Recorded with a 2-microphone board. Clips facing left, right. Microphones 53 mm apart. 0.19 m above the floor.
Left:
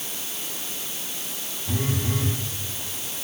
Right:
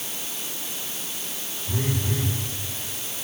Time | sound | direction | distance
1.7 | a phone buzzing | 30° left (ahead or behind) | 7 m